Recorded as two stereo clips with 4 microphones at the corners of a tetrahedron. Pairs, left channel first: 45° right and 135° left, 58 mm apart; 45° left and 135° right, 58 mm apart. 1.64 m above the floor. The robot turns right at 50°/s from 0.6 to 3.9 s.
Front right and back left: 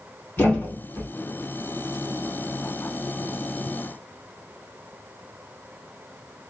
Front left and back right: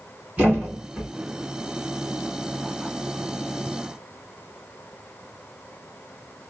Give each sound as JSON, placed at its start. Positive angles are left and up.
{"t": 0.4, "sound": "a thud", "azimuth_deg": -80, "distance_m": 2.0}